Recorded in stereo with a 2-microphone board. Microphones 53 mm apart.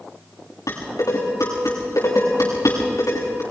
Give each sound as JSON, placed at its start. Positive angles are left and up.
{"t": 0.7, "sound": "dishes clattering", "side_deg": 80, "distance_m": 8.0}